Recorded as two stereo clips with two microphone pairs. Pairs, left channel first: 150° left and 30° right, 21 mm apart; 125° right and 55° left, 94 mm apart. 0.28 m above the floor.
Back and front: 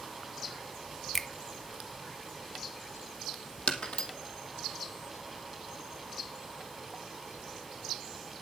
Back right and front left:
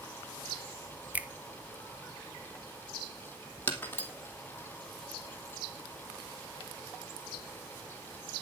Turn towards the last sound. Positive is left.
turn(degrees=170)